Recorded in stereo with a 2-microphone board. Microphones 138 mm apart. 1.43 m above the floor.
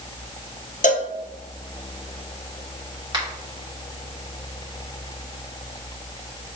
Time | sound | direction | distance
0.8 | a cowbell | 60° left (ahead or behind) | 0.6 m
3.1 | a finger snap | 25° right (ahead or behind) | 2.5 m